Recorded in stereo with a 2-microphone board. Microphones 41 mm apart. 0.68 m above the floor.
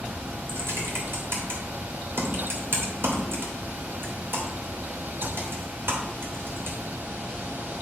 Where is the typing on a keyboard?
65° right (ahead or behind), 2.5 m.